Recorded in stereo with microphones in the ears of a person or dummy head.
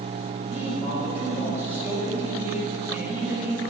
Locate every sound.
0.5 s a man speaking: 15° right (ahead or behind), 2.5 m